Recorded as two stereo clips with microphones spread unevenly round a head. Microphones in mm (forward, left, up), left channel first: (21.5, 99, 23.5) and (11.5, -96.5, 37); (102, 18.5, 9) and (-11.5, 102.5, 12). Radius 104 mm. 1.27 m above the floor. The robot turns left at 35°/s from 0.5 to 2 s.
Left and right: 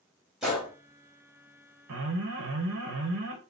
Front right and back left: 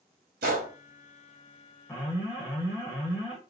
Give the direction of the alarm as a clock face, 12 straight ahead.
4 o'clock.